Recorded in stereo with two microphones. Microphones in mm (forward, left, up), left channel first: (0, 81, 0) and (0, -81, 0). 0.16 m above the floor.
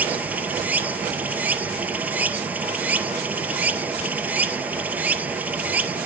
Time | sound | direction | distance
0.0 | running water | 10° right (ahead or behind) | 1.1 m